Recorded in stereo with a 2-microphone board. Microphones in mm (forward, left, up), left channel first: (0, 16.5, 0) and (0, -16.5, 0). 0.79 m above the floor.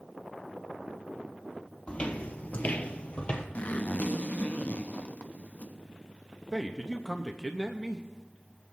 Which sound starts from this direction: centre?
A man speaking, at 6.5 s.